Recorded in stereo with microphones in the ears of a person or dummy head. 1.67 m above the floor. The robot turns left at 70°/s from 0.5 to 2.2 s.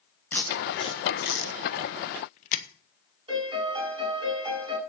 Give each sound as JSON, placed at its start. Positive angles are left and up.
{"t": 0.3, "sound": "tape being pulled", "side_deg": 5, "distance_m": 1.3}
{"t": 3.3, "sound": "a piano", "side_deg": -25, "distance_m": 8.0}